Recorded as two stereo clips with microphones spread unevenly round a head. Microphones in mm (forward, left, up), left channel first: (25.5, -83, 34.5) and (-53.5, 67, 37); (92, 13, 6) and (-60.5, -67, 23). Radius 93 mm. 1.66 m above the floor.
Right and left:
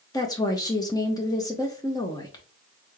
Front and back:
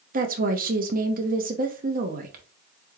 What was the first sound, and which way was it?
A woman speaking, 130° right.